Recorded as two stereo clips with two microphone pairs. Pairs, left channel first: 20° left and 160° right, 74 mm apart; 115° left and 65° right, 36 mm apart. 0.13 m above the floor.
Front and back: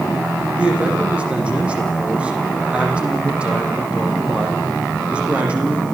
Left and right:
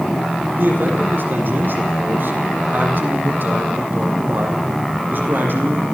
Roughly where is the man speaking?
Right.